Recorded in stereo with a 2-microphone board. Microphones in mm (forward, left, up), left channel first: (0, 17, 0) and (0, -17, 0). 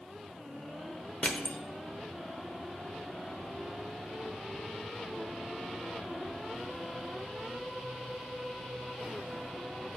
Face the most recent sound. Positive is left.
turn(degrees=35)  # may be behind; listen again after turning